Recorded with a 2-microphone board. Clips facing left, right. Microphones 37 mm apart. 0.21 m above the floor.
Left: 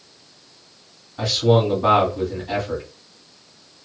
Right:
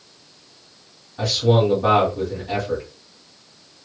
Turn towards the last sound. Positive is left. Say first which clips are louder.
# even
turn(degrees=0)  # may be behind; listen again after turning